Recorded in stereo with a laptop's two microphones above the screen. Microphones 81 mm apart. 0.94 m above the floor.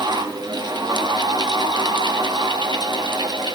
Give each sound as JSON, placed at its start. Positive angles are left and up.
{"t": 0.0, "sound": "a fan", "side_deg": -65, "distance_m": 1.5}